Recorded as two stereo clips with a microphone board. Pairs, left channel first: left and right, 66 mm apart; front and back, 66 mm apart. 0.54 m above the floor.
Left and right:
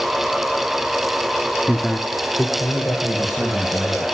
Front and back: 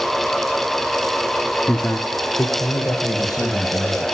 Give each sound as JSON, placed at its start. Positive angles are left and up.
{"t": 1.7, "sound": "a man speaking", "azimuth_deg": -5, "distance_m": 0.9}